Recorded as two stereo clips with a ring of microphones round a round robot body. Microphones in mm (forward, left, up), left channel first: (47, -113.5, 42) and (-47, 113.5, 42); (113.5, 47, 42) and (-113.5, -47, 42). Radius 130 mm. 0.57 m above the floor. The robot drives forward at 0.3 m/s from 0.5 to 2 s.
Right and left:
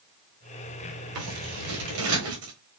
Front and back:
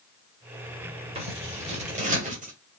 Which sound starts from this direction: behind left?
Scissors, at 1.1 s.